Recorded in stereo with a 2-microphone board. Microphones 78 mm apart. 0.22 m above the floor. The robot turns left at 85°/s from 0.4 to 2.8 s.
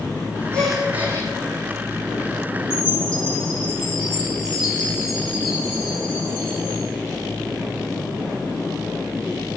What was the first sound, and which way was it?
A gasp, 15° left.